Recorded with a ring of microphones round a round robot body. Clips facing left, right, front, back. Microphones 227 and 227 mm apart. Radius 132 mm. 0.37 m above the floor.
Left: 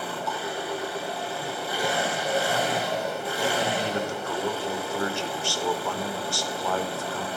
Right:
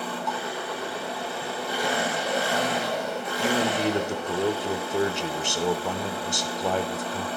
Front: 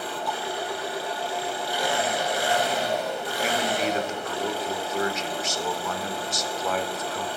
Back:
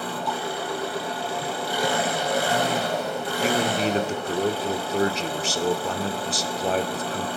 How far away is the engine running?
About 3.5 m.